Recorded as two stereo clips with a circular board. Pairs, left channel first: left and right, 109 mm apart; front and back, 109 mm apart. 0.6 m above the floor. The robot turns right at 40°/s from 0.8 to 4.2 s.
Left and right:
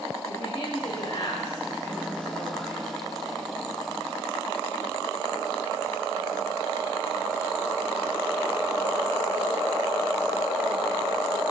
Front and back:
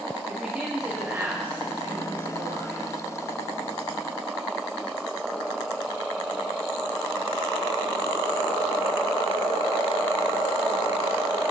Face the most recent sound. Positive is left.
turn(degrees=-125)